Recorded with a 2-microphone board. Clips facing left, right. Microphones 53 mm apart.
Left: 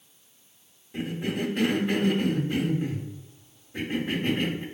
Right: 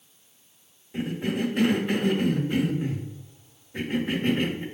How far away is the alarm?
I don't hear an alarm.